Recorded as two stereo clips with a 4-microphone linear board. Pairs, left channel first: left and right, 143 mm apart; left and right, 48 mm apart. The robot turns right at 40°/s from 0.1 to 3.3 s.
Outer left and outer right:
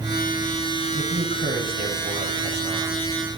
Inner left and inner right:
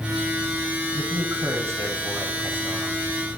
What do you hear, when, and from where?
0.9 s a man speaking: 105° right, 7 m; by 3.1 s 20° right, 7 m